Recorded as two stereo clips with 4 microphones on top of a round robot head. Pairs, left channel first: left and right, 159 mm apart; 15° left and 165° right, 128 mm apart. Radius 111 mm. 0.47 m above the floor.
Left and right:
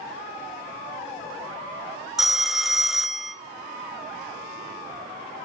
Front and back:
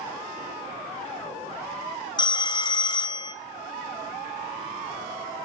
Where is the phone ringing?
5° right, 0.7 m.